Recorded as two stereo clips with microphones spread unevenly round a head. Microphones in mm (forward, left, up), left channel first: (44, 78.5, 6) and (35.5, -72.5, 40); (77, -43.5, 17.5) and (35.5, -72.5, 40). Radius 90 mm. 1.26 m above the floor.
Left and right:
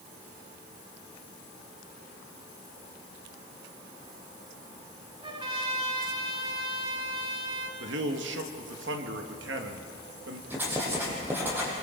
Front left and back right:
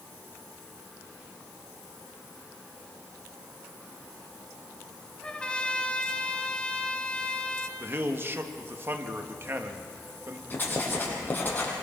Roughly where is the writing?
Ahead.